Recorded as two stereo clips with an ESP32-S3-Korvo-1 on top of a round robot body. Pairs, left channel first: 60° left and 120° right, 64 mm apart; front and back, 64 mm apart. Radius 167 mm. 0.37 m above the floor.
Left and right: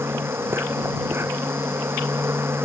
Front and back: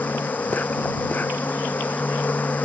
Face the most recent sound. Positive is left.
turn(degrees=-65)